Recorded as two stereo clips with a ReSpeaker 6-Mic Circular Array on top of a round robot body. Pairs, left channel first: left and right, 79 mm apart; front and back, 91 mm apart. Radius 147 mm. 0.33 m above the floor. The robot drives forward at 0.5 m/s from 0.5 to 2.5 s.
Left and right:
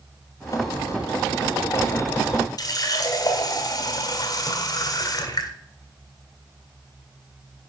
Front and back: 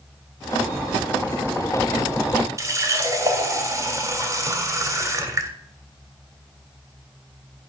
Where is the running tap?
125° left, 1.7 m.